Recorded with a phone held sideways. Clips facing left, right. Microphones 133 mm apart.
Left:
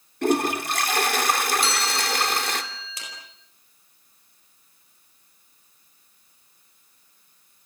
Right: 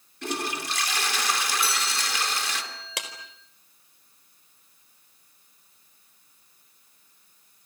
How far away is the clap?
About 4 m.